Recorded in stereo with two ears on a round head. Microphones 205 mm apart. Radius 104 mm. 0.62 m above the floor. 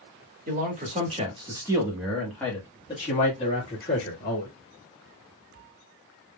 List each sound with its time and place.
0.5 s a man speaking: 40° right (ahead or behind), 1.4 m; by 4.5 s 50° left (ahead or behind), 1.7 m